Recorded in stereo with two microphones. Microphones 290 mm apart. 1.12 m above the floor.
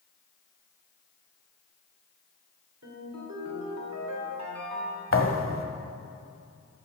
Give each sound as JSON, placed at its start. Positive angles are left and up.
{"t": 2.8, "sound": "a ringtone", "side_deg": -65, "distance_m": 2.5}
{"t": 5.1, "sound": "a thud", "side_deg": 45, "distance_m": 1.2}